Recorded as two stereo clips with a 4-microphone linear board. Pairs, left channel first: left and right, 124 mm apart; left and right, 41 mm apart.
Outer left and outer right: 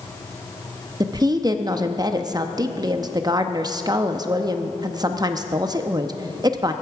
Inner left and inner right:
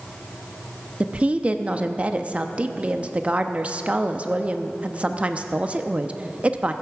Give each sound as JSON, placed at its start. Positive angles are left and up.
{"t": 1.0, "sound": "a woman speaking", "side_deg": -30, "distance_m": 0.7}